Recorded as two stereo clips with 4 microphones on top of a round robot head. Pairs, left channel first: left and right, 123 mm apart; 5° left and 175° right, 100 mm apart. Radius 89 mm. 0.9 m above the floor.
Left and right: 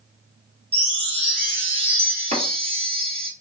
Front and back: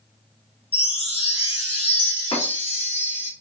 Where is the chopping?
70° right, 2 m.